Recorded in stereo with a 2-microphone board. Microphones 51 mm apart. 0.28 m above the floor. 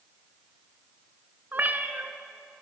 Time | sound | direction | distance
1.5 | a cat meowing | 40° right (ahead or behind) | 1.5 m